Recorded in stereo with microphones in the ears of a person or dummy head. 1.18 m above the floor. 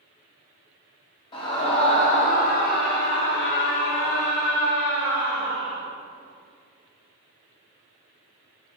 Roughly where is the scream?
Left.